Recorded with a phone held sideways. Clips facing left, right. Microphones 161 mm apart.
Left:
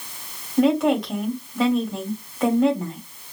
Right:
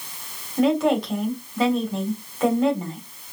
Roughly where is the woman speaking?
Centre.